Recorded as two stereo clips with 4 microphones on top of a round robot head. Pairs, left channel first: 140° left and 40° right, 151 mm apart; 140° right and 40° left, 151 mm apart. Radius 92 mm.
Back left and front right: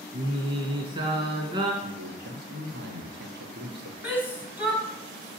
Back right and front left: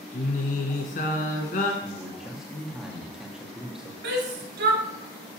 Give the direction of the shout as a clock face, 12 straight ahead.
11 o'clock.